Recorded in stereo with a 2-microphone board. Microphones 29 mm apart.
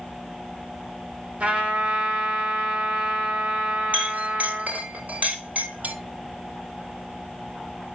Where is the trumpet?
45° right (ahead or behind), 2.5 m.